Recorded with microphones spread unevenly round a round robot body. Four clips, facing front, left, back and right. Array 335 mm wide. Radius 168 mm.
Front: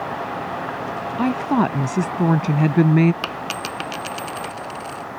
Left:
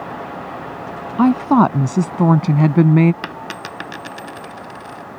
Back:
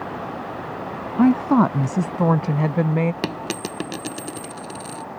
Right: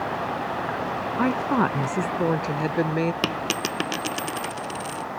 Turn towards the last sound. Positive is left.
turn(degrees=-160)